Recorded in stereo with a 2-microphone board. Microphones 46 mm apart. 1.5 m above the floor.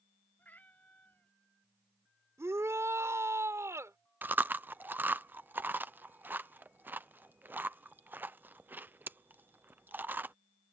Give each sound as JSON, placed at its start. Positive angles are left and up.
{"t": 0.4, "sound": "a cat meowing", "side_deg": 40}
{"t": 2.4, "sound": "a shout", "side_deg": -80}
{"t": 4.2, "sound": "chewing", "side_deg": -45}